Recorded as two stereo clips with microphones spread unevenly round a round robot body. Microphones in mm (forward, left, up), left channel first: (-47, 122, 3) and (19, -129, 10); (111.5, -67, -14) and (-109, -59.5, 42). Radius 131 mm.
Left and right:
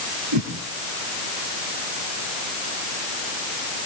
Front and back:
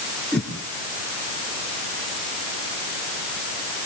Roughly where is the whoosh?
Right.